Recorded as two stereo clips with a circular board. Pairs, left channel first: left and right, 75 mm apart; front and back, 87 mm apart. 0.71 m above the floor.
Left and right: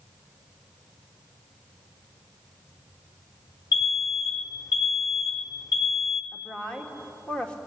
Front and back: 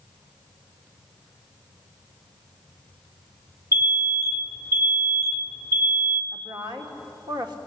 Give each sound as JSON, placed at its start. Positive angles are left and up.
{"t": 3.7, "sound": "an alarm", "azimuth_deg": 60, "distance_m": 1.8}
{"t": 6.3, "sound": "a woman speaking", "azimuth_deg": 160, "distance_m": 2.5}